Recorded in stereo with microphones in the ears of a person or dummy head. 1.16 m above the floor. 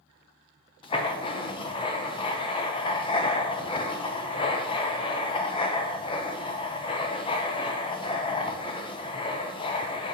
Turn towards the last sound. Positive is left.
turn(degrees=20)  # may be behind; listen again after turning